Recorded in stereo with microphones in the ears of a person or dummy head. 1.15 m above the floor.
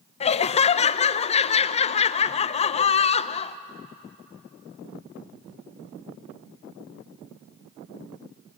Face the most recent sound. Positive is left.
turn(degrees=30)  # may be behind; listen again after turning